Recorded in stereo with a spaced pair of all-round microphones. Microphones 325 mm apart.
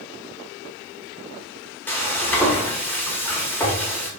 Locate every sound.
1.9 s frying: 5° left (ahead or behind), 0.5 m